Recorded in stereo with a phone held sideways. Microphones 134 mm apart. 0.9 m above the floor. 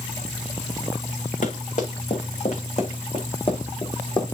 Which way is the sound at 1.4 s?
60° left (ahead or behind).